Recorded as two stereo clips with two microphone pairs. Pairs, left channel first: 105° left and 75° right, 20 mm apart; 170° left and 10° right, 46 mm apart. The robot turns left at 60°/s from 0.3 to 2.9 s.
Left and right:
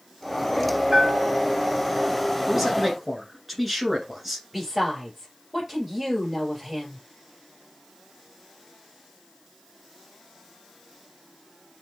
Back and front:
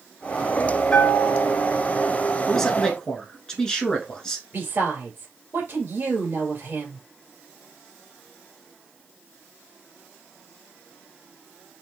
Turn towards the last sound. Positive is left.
turn(degrees=-10)